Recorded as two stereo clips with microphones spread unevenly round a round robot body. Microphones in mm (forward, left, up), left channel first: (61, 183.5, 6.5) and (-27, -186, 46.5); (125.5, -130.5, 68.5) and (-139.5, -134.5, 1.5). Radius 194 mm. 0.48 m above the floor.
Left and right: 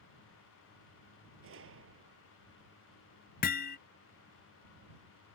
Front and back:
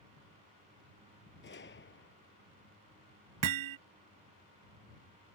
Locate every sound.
1.4 s a gunshot: 45° right
3.4 s hammering: 145° left